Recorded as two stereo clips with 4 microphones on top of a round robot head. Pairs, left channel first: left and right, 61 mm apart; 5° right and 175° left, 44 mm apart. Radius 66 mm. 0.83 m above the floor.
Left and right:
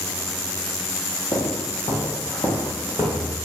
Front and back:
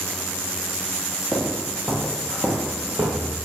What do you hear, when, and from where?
1.3 s footsteps: 80° left, 1.4 m; by 3.4 s 150° left, 1.0 m